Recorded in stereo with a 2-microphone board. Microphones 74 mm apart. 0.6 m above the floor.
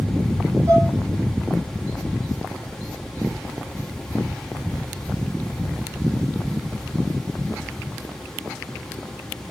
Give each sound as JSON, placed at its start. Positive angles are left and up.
{"t": 0.7, "sound": "dishes clattering", "side_deg": -45, "distance_m": 7.0}